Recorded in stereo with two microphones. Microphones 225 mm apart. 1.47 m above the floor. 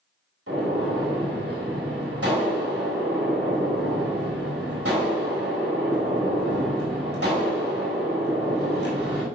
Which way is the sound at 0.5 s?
80° right.